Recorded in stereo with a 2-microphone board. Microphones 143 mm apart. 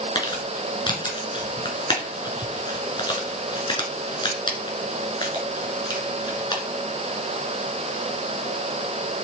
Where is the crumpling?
35° left (ahead or behind), 2.5 m.